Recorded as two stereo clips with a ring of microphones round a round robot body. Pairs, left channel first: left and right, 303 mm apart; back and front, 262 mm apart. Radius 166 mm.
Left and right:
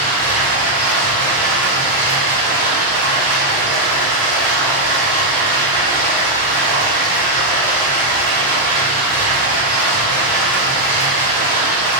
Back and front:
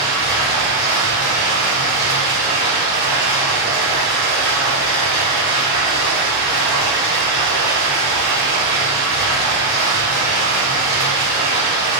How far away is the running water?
About 1.4 m.